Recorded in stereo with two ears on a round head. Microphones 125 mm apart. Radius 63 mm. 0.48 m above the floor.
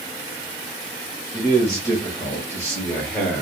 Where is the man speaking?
25° left (ahead or behind), 2 m; by 3.4 s 10° left (ahead or behind), 1.2 m.